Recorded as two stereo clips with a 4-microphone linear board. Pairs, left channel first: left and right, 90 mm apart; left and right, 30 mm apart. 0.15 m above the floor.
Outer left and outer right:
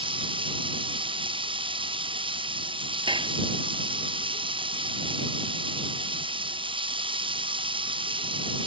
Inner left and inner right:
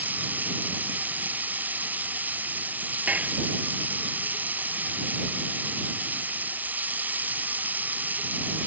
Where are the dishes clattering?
65° right (ahead or behind).